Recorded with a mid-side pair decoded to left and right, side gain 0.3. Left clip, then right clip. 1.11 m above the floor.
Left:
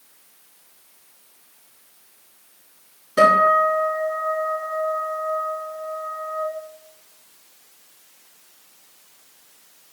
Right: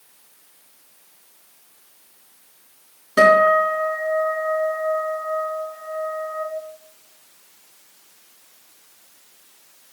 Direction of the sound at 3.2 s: 60° right.